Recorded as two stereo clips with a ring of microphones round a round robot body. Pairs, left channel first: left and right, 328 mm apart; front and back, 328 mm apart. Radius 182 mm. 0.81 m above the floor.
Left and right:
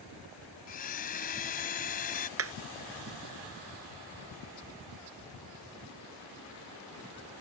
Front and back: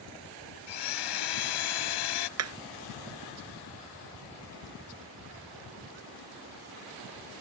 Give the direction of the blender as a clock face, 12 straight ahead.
11 o'clock.